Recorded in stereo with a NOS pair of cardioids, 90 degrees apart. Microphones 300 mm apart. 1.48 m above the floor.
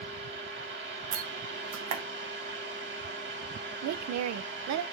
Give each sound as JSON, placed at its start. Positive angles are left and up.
{"t": 0.0, "sound": "a fan", "azimuth_deg": -40, "distance_m": 2.0}
{"t": 1.1, "sound": "a door slam", "azimuth_deg": -65, "distance_m": 0.9}
{"t": 3.8, "sound": "a woman speaking", "azimuth_deg": -65, "distance_m": 0.6}